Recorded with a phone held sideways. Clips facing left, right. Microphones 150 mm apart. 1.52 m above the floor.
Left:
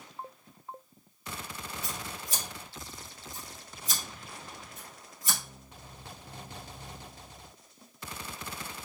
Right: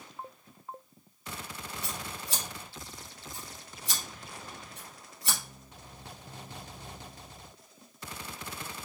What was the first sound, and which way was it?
Scissors, 70° right (ahead or behind).